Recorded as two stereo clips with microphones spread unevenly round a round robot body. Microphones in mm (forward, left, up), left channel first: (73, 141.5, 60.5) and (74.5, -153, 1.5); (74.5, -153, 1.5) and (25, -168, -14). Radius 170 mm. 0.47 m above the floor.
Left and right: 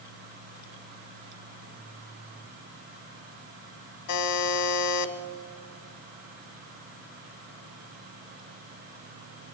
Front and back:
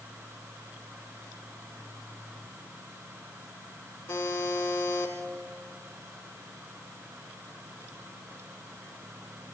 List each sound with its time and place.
4.1 s a buzzer: 60° left, 1.5 m